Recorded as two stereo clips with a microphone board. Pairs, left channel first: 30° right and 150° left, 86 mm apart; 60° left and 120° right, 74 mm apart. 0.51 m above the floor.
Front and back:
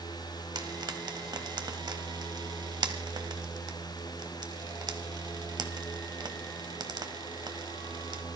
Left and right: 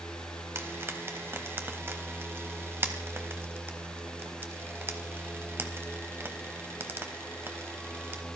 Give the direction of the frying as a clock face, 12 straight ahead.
6 o'clock.